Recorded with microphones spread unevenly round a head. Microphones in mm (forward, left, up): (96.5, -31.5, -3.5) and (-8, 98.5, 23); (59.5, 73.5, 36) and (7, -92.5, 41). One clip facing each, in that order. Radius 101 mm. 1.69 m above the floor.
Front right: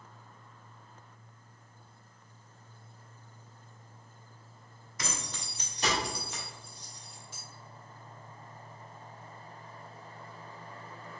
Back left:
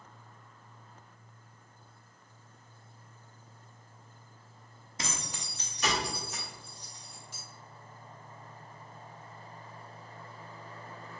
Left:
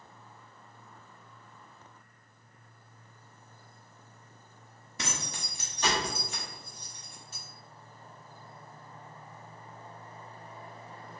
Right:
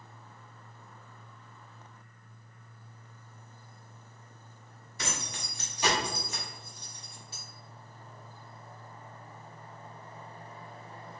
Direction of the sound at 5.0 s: 90° left.